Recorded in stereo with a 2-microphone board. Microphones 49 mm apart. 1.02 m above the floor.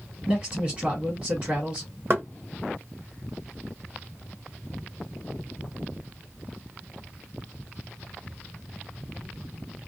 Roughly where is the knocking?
Right.